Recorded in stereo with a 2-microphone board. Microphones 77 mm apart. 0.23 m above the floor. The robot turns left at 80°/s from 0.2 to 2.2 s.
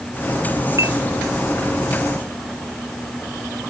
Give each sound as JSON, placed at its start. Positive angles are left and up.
{"t": 0.8, "sound": "a clink", "side_deg": -40}